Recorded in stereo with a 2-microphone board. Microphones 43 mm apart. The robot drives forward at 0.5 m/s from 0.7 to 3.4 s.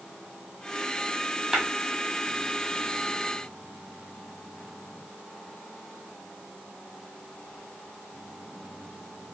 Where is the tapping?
10° right (ahead or behind), 1.2 m.